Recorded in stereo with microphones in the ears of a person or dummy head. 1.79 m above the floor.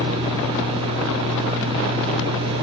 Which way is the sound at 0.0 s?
25° right (ahead or behind).